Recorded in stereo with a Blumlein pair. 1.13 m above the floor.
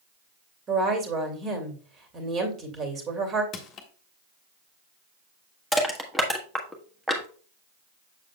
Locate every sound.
0.7 s a woman speaking: 25° right, 2.5 m
3.5 s crushing: 30° left, 1.4 m
5.7 s crushing: straight ahead, 1.3 m